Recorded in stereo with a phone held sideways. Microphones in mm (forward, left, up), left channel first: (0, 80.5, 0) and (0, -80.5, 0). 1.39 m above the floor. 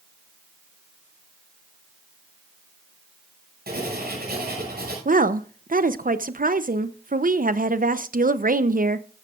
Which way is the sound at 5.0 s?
60° right (ahead or behind).